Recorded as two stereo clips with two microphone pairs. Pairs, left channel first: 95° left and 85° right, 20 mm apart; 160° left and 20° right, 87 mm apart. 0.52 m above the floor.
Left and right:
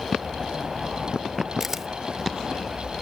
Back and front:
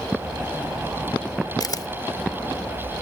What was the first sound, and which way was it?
A camera shutter, 160° right.